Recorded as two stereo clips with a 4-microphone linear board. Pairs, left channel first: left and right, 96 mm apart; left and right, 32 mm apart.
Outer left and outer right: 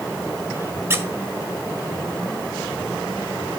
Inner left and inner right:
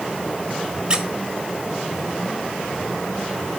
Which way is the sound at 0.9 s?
25° right (ahead or behind).